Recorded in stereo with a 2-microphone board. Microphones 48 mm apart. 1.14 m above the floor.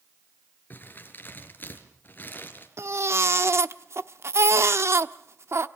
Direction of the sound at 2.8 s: 65° right (ahead or behind).